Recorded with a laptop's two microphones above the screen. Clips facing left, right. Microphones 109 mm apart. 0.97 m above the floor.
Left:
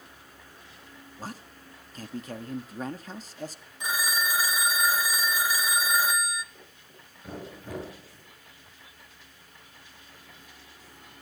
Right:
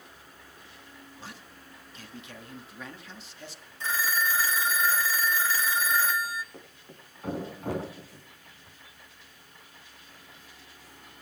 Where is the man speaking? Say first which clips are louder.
Left 8 dB; 40° left (ahead or behind), 1.8 m.